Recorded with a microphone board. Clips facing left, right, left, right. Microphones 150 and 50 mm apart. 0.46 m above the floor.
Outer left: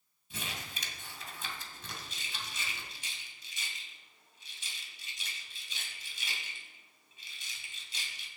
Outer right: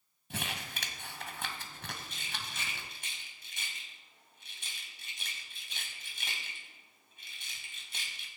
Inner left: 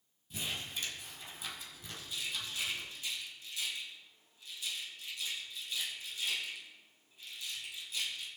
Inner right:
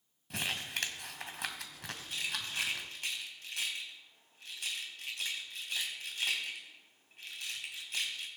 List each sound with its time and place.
0.3 s crumpling: 70° right (ahead or behind), 1.9 m
2.0 s a rattle: 60° right (ahead or behind), 3 m